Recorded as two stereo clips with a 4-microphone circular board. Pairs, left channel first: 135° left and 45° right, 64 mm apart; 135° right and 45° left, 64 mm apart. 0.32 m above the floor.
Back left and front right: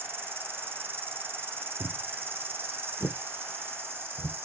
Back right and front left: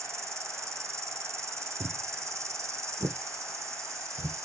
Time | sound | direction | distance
0.0 | an insect | 5° left | 0.7 m
1.8 | footsteps | 25° left | 0.7 m